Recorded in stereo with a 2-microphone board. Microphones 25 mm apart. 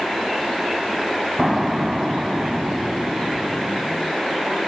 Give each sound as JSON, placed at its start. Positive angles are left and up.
{"t": 1.4, "sound": "an explosion", "side_deg": -20}